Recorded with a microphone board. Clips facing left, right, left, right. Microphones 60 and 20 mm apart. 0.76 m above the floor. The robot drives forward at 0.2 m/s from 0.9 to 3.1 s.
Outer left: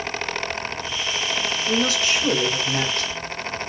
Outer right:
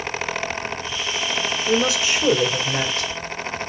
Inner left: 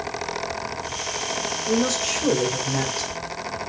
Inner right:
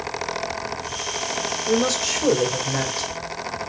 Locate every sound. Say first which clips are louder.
1.7 s a woman speaking: outer right 2 dB, inner right 2 dB; 20° right (ahead or behind), 2 m